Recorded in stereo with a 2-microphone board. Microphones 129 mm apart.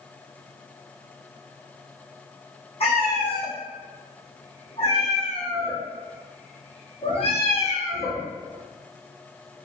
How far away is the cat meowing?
About 1.6 m.